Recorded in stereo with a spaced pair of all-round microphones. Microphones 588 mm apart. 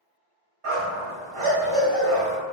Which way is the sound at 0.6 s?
60° right (ahead or behind).